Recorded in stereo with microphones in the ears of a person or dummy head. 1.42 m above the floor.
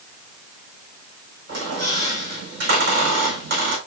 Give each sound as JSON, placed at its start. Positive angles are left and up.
{"t": 1.5, "sound": "a squeak", "side_deg": -60, "distance_m": 4.5}